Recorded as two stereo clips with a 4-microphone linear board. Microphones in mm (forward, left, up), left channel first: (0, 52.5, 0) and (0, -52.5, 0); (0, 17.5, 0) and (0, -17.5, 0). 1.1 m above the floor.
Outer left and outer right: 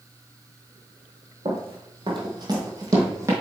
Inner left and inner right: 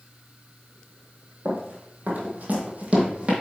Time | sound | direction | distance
1.4 | running footsteps | 55° right (ahead or behind) | 1.9 m